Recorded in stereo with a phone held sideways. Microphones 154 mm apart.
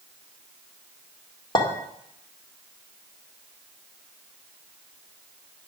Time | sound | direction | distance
1.6 | a clink | 30° left (ahead or behind) | 1.9 m